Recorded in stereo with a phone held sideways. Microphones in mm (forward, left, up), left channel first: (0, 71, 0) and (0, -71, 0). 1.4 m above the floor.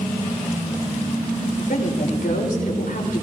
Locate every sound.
1.6 s a woman speaking: 90° left, 3 m